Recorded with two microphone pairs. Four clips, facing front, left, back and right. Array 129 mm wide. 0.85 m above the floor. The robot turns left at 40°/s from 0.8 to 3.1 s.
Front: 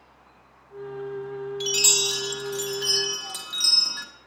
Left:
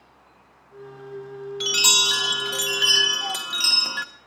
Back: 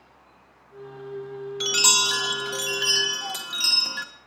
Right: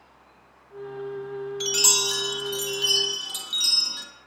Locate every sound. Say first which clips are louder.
1.6 s a chime: left 2 dB, back 2 dB; 165° left, 1.3 m; by 4.0 s 105° left, 1.3 m